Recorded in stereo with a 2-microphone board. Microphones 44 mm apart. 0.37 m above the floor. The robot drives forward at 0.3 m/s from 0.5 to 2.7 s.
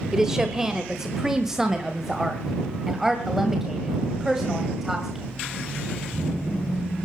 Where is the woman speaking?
15° right (ahead or behind), 1.3 m; by 5.2 s 10° right (ahead or behind), 1.8 m.